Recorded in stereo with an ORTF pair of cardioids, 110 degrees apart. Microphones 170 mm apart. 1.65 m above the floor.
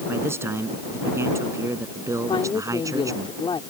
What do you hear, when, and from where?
0.1 s a man speaking: 15° right; by 3.3 s 20° right
2.3 s a woman speaking: 30° left